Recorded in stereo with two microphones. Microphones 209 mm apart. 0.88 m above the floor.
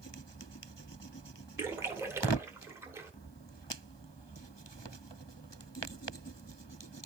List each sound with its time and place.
1.6 s a splash: 10° right (ahead or behind), 1.1 m